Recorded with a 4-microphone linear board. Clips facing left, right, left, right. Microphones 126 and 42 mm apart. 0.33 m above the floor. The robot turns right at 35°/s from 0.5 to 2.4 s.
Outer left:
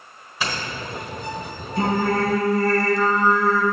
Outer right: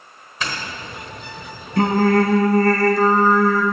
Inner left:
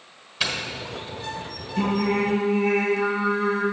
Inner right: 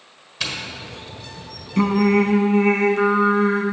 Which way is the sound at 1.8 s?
75° right (ahead or behind).